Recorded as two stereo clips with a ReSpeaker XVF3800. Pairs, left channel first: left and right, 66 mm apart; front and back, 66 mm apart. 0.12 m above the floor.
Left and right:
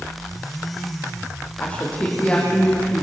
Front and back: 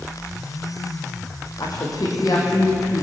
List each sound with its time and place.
1.6 s a woman speaking: 20° left, 6.5 m; by 3.0 s 25° left, 6.5 m